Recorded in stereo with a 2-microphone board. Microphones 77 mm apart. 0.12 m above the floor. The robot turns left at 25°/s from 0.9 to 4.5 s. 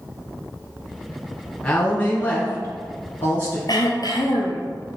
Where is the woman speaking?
20° left (ahead or behind), 1.4 m; by 3.6 s 30° left (ahead or behind), 1.4 m.